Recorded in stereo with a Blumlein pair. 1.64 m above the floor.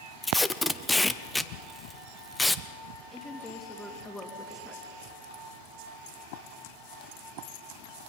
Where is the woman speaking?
10° left, 3 m.